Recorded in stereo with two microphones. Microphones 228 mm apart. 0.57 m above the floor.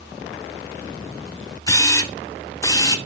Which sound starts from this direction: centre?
A camera shutter, at 1.7 s.